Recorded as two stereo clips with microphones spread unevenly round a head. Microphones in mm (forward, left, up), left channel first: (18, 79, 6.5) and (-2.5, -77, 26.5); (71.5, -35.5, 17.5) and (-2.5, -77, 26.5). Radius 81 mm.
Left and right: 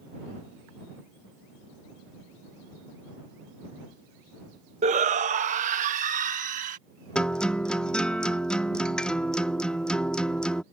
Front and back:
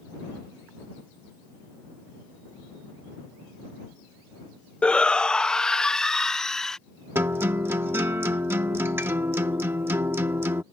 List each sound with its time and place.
4.8 s a shout: 50° right; by 6.8 s 55° right
7.2 s a guitar: 175° left